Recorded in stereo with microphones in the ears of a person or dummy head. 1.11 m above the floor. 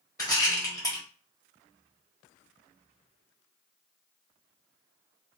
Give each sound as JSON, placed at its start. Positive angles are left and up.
{"t": 0.2, "sound": "a rattle", "side_deg": 15, "distance_m": 1.1}